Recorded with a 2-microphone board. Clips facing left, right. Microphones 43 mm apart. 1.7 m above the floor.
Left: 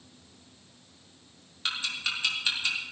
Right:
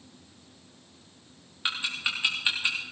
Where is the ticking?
20° right (ahead or behind), 3.5 m.